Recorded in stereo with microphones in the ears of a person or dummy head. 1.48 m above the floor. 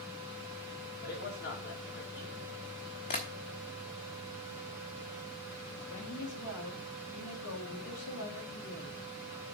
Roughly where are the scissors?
I don't hear scissors.